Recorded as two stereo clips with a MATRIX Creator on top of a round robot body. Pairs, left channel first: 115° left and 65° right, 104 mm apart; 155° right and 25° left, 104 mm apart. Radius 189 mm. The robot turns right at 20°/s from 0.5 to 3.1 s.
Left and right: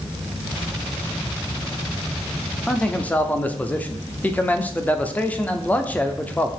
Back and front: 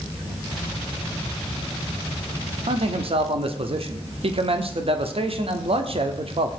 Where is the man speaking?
30° left, 1.5 m; by 6.5 s 40° left, 1.5 m.